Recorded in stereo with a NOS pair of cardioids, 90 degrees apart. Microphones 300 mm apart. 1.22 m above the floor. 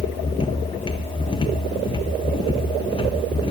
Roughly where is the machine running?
Ahead.